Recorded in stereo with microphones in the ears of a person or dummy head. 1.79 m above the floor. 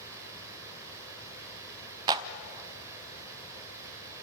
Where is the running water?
15° right (ahead or behind), 4 m.